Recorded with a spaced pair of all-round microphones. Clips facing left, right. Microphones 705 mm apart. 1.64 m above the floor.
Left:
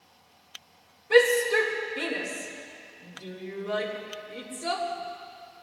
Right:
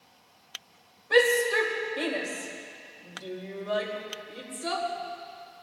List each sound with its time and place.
1.1 s a shout: 50° left (ahead or behind), 2.5 m